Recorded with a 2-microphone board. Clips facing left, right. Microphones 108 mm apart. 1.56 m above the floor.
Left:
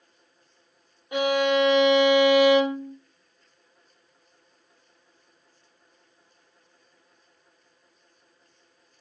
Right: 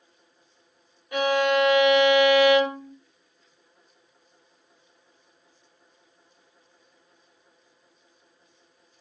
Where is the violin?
20° left (ahead or behind), 1.1 m.